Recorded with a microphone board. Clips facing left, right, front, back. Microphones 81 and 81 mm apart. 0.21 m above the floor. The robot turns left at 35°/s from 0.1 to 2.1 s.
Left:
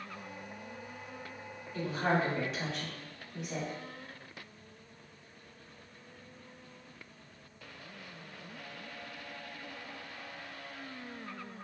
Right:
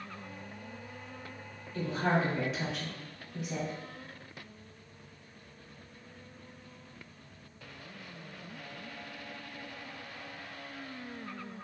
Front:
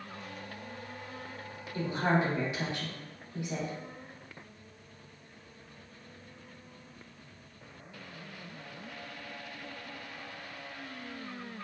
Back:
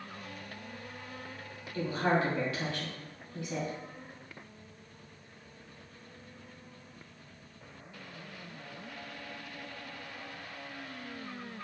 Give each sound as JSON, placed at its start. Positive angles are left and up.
{"t": 1.7, "sound": "a woman speaking", "azimuth_deg": 10, "distance_m": 1.0}